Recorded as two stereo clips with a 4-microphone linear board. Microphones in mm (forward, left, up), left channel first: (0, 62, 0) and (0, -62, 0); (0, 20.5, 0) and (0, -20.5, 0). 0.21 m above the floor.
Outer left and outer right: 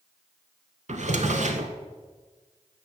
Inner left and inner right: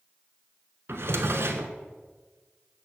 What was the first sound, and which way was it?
A drawer, 75° right (ahead or behind).